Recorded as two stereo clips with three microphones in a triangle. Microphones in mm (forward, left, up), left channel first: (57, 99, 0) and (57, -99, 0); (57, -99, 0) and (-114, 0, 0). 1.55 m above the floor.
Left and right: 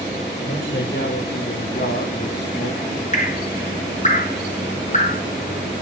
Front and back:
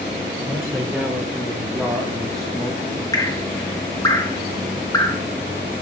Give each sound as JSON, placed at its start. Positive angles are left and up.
{"t": 0.5, "sound": "a man speaking", "azimuth_deg": 70, "distance_m": 6.5}
{"t": 3.1, "sound": "dripping", "azimuth_deg": 40, "distance_m": 1.6}